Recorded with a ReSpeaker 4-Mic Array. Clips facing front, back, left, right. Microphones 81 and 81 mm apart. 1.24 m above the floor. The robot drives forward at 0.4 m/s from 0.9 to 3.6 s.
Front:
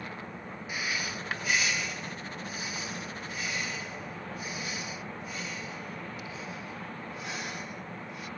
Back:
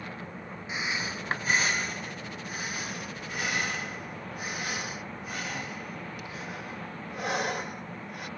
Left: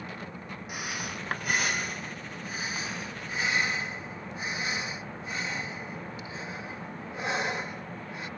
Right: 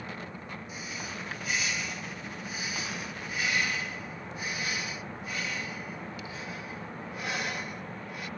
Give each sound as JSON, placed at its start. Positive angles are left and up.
{"t": 0.7, "sound": "breathing", "azimuth_deg": 115}